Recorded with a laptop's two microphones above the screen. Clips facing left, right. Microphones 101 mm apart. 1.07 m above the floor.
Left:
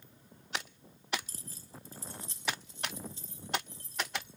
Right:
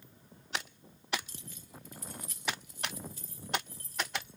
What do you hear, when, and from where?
1.3 s keys jangling: 40° left (ahead or behind), 0.6 m; by 4.4 s 25° left (ahead or behind), 3.5 m